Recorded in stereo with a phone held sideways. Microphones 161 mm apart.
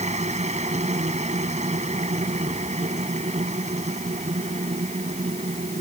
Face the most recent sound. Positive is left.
turn(degrees=-45)  # may be behind; listen again after turning